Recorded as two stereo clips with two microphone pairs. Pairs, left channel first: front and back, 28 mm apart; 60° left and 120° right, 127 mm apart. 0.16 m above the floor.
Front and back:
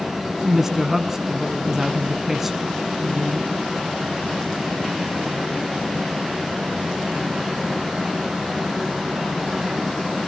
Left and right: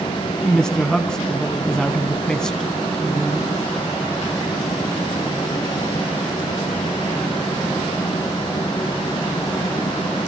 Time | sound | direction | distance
0.5 | a woman speaking | 130° left | 1.0 m